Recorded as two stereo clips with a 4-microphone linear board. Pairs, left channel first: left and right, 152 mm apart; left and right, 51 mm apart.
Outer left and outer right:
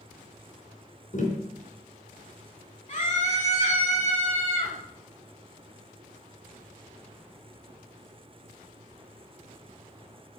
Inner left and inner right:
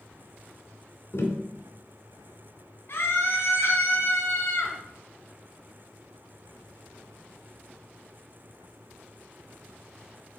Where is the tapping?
55° left (ahead or behind), 2.5 m.